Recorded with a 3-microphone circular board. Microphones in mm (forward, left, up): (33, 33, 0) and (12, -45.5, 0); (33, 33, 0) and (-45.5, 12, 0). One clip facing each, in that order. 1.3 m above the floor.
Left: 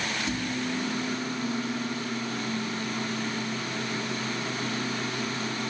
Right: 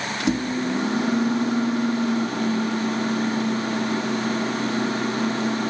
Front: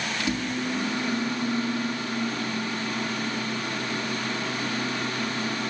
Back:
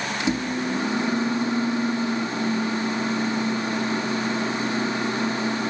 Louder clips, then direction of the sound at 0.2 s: Right 12 dB, back 4 dB; 100° right.